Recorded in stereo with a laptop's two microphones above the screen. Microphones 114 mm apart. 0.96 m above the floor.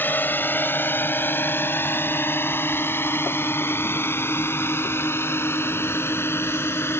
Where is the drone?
20° left (ahead or behind).